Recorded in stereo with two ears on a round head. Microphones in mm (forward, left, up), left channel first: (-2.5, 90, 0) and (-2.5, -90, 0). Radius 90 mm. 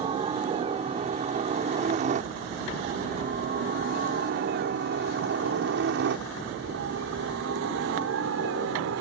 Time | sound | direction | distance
0.0 | a helicopter | 25° right (ahead or behind) | ?